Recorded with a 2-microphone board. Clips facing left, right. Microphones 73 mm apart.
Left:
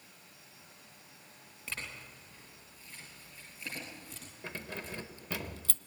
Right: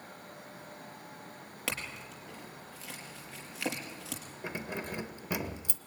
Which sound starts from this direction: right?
A clink, at 1.7 s.